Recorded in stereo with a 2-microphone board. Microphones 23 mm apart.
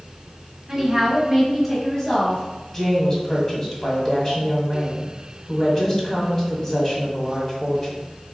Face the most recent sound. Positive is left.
turn(degrees=20)  # may be behind; listen again after turning